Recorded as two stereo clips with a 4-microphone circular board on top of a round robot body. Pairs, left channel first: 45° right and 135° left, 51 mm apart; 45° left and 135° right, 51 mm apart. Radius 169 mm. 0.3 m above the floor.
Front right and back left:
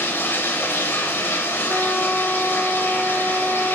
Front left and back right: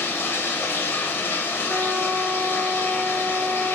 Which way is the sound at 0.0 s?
5° left.